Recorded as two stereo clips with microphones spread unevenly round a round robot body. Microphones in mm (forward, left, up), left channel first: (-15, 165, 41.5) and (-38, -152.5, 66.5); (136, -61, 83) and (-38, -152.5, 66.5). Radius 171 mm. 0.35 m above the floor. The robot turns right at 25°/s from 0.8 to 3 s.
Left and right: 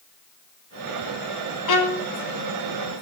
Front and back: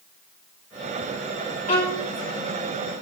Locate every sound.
1.7 s a violin: 85° left, 2.5 m; by 2.0 s 95° left, 2.5 m